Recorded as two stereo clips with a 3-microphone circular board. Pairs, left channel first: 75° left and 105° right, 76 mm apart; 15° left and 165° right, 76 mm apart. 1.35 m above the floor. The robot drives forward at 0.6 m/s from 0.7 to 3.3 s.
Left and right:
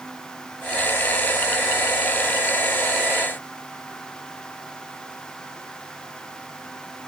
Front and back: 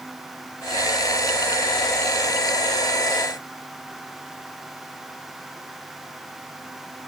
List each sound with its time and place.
Only background noise.